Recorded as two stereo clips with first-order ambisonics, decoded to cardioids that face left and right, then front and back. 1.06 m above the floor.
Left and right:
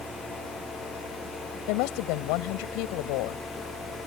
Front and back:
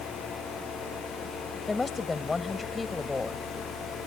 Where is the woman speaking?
80° left.